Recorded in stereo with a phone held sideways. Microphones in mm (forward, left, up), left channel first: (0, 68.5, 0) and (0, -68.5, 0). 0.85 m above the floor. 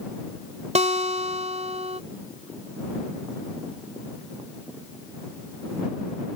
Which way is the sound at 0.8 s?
55° right (ahead or behind).